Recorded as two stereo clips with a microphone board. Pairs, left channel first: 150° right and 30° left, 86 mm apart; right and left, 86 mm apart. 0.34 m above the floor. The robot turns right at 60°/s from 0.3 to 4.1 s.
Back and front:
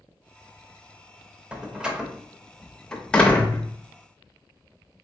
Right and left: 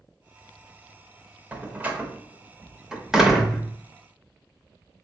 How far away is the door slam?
About 0.7 m.